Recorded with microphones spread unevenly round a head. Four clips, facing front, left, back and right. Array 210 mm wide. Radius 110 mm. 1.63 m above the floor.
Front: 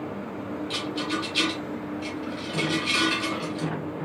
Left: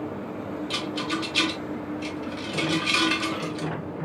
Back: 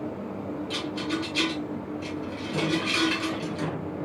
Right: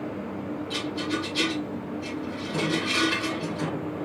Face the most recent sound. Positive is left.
turn(degrees=100)